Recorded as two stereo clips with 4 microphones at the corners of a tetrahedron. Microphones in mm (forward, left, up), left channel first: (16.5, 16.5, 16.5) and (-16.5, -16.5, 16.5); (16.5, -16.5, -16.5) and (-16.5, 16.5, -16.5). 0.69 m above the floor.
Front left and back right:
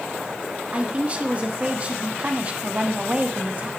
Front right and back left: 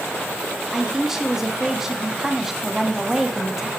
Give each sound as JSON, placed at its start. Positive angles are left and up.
{"t": 0.7, "sound": "a man speaking", "azimuth_deg": -160, "distance_m": 1.2}